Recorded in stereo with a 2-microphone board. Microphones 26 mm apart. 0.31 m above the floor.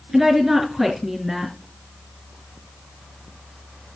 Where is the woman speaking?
10° right (ahead or behind), 3.5 m.